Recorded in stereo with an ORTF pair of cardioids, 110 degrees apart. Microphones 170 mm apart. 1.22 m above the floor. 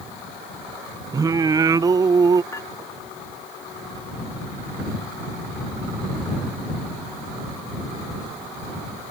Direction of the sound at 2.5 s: 20° left.